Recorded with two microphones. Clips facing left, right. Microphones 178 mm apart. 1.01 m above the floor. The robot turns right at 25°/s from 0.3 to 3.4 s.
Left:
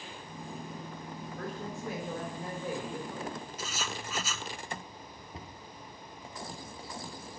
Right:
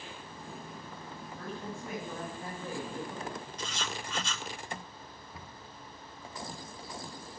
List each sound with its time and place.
1.4 s a woman speaking: 130° left, 3.5 m; by 3.5 s straight behind, 3.5 m
3.6 s writing: 5° left (ahead or behind), 0.8 m
5.3 s a cupboard door: 25° left (ahead or behind), 0.7 m